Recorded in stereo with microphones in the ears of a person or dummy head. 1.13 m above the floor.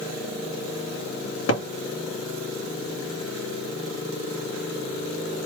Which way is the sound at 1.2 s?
65° left (ahead or behind).